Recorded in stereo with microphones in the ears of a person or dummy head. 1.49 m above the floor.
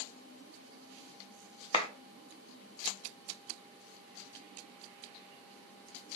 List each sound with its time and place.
1.7 s a clap: 30° left (ahead or behind), 0.7 m